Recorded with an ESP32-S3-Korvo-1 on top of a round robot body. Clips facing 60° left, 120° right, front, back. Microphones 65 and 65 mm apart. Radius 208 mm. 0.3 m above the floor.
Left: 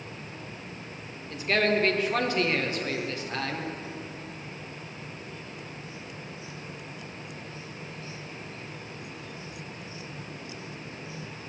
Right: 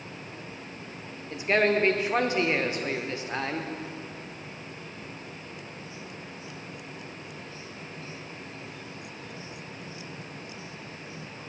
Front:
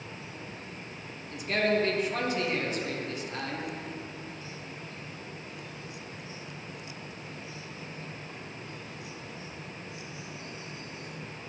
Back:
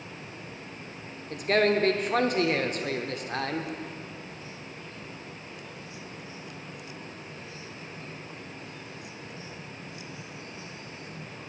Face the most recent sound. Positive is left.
turn(degrees=175)